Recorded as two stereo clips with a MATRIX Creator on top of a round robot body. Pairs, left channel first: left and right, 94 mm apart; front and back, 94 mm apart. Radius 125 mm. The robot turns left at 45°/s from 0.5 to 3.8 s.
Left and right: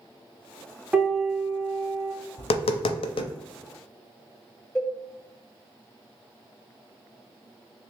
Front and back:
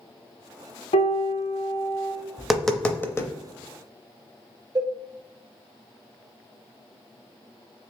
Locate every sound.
0.9 s a piano: 10° right, 0.8 m; by 2.1 s 65° right, 0.8 m
2.4 s tapping: 100° left, 0.5 m; by 3.3 s 55° left, 0.5 m
4.8 s a cowbell: 165° left, 1.1 m